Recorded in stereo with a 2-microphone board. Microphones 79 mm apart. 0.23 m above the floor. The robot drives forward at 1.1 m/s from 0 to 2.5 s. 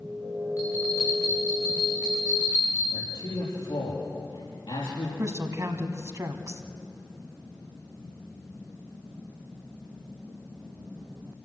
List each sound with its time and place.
0.6 s a bell: 45° left (ahead or behind), 7 m; by 2.8 s 35° left (ahead or behind), 8.5 m
2.9 s a man speaking: 75° left (ahead or behind), 5.5 m
5.2 s a woman speaking: 40° right (ahead or behind), 1.5 m